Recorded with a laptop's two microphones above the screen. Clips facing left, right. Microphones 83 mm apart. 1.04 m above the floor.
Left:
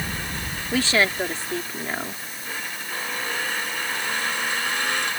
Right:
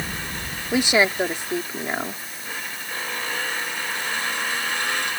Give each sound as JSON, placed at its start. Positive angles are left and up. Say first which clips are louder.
{"t": 0.7, "sound": "a woman speaking", "louder": "right 2 dB", "side_deg": -20}